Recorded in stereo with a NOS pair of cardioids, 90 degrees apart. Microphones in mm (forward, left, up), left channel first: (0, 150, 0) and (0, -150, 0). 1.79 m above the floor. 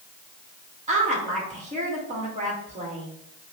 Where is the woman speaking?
25° right, 1.7 m.